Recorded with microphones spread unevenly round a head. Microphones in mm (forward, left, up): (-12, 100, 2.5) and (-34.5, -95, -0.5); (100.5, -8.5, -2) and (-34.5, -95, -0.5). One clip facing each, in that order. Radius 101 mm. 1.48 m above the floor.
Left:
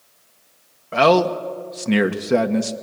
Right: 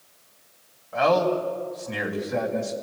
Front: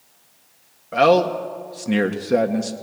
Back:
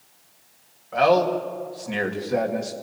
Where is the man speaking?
85° left, 1.8 m.